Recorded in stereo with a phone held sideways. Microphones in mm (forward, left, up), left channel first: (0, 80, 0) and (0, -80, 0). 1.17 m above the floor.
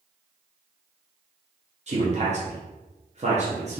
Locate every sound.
1.9 s a man speaking: 45° right (ahead or behind), 0.9 m